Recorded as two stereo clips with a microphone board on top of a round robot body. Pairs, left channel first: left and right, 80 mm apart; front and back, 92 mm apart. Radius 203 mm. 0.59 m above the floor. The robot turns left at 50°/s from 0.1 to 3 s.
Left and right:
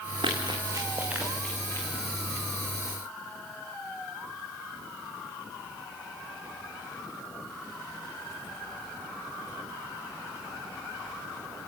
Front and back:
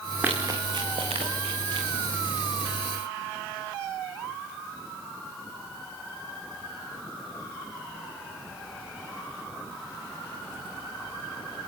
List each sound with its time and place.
0.2 s running footsteps: 110° right, 3.5 m; by 1.9 s 150° left, 4 m